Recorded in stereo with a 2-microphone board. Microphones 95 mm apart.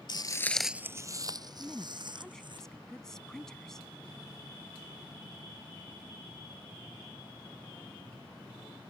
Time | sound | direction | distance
0.1 | footsteps | 55° left (ahead or behind) | ?
1.6 | a woman speaking | 5° left (ahead or behind) | ?